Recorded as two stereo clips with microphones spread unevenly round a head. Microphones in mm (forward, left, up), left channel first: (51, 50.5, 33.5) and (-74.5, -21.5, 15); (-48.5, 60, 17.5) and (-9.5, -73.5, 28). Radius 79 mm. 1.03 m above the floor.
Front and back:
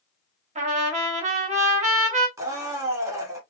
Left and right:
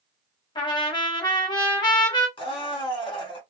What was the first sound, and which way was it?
A trumpet, 165° left.